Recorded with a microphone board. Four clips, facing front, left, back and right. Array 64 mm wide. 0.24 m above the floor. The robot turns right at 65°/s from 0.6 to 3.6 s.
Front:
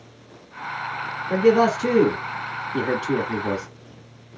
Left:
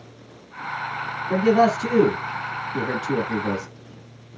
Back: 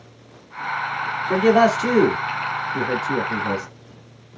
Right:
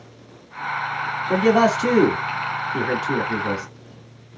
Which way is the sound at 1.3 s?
135° right.